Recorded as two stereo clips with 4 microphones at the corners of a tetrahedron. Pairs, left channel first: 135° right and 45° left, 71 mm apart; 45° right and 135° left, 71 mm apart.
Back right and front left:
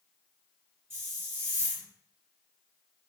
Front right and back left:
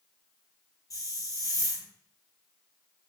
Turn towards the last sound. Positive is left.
turn(degrees=-10)